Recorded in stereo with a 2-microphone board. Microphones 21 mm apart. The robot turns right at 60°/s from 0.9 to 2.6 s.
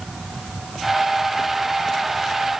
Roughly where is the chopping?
No chopping in this recording.